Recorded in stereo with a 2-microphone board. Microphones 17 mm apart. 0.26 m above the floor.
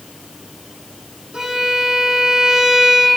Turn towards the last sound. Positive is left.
turn(degrees=-75)  # may be behind; listen again after turning